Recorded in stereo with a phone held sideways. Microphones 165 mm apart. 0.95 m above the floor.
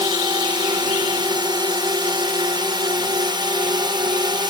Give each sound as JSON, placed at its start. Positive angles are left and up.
{"t": 0.0, "sound": "a drone", "side_deg": -30}